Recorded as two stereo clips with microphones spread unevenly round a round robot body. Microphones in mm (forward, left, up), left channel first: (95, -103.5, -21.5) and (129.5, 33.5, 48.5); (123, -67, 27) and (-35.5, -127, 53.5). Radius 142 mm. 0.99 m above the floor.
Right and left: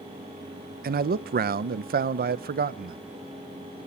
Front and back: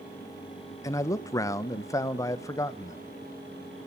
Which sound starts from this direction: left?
A man speaking, at 0.8 s.